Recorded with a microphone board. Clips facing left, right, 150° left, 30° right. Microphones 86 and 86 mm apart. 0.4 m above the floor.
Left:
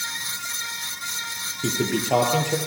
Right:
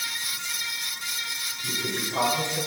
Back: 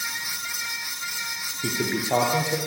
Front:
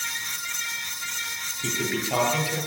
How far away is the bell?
I don't hear a bell.